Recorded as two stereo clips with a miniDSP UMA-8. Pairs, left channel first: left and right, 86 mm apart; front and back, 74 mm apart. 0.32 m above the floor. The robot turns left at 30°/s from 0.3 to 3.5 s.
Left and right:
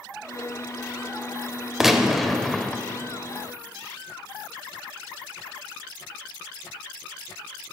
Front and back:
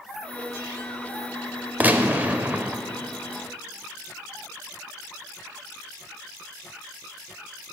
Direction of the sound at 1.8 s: 170° right.